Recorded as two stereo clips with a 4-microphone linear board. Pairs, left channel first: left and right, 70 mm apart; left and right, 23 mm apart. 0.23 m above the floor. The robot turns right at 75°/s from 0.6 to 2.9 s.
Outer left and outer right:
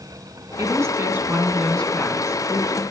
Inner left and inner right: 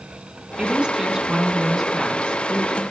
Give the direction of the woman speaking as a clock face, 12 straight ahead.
2 o'clock.